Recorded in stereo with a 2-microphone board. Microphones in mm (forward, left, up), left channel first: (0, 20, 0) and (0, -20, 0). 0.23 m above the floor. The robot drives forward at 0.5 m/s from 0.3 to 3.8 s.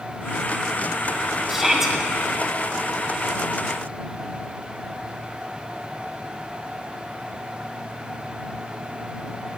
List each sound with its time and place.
1.5 s a shout: 10° right (ahead or behind), 1.7 m